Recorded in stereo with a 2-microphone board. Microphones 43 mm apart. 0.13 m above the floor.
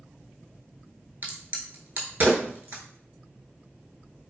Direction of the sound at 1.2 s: 45° right (ahead or behind).